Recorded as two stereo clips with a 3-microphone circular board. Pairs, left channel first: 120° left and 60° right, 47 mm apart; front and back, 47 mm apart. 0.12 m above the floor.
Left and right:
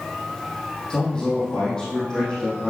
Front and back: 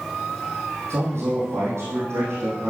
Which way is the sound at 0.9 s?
165° right.